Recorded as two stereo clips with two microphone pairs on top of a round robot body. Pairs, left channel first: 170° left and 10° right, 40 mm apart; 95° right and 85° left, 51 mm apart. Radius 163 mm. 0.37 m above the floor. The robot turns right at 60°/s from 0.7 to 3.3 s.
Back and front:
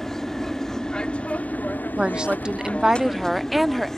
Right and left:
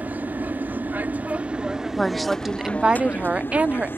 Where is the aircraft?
85° left; by 4.0 s 110° right.